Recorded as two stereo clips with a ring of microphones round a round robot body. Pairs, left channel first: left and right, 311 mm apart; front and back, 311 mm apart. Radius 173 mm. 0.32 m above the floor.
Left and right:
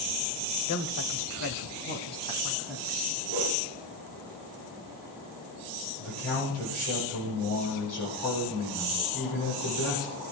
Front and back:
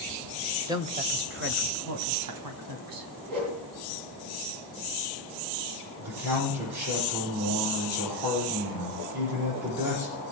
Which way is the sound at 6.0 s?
145° left.